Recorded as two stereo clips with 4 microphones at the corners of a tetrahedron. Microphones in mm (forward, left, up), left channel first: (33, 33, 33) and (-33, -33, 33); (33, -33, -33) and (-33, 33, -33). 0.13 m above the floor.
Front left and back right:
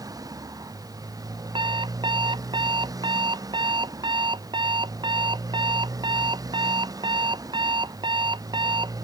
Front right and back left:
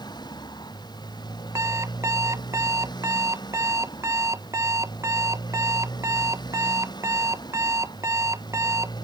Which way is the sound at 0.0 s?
85° right.